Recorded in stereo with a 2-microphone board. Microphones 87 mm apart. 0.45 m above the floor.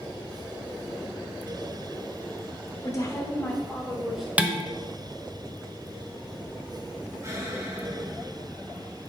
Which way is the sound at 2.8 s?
35° left (ahead or behind).